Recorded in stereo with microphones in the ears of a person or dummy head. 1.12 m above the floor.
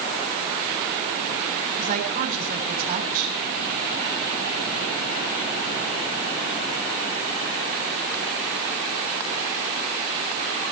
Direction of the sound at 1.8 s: 40° right (ahead or behind).